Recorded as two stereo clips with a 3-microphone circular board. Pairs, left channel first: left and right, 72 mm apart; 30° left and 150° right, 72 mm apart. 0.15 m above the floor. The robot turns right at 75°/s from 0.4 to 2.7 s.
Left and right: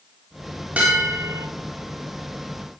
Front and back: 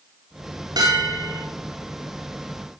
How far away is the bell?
About 7 m.